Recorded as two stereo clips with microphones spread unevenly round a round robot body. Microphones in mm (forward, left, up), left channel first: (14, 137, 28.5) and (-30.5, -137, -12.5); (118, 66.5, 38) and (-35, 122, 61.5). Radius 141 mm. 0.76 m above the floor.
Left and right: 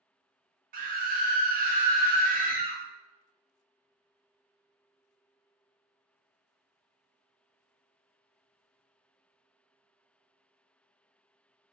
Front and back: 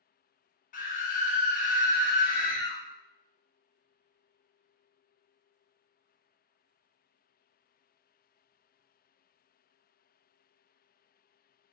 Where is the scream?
45° right, 0.8 m.